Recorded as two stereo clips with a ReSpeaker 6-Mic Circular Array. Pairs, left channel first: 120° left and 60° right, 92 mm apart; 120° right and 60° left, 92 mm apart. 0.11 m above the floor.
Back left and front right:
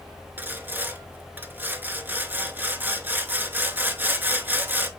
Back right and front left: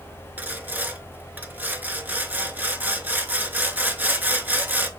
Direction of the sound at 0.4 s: Straight ahead.